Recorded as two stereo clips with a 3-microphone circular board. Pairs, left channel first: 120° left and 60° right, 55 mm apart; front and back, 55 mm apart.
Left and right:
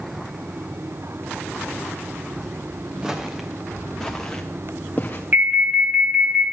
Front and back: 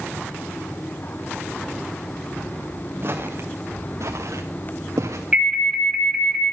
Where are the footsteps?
135° right, 2 m; by 5.2 s 170° left, 1.9 m.